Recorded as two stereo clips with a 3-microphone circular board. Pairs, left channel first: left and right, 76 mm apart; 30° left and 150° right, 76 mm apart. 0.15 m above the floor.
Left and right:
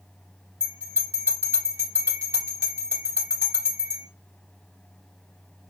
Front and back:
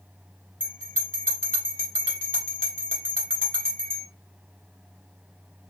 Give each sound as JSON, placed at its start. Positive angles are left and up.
{"t": 0.6, "sound": "a bell", "azimuth_deg": -40, "distance_m": 1.9}